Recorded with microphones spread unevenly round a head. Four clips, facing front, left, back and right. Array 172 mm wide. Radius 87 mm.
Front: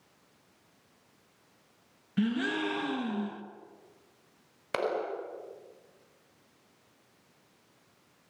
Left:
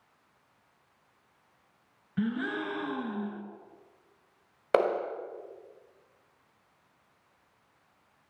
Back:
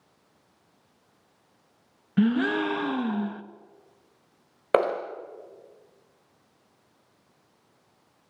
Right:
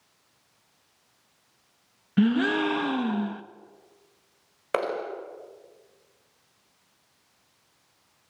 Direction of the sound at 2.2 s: 140° right.